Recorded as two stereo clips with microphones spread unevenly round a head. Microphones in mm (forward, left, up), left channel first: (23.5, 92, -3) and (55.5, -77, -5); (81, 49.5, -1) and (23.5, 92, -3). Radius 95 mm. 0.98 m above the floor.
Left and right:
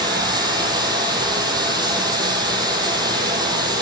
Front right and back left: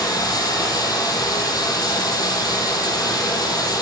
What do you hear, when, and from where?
0.0 s running water: 15° right, 5.5 m